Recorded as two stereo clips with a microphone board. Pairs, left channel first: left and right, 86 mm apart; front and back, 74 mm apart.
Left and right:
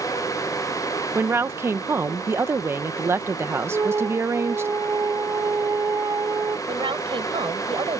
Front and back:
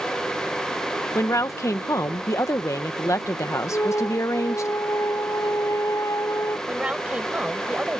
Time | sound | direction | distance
1.1 | a woman speaking | 35° right | ?
3.7 | a flute | 40° right | ?
6.7 | a woman speaking | 105° right | ?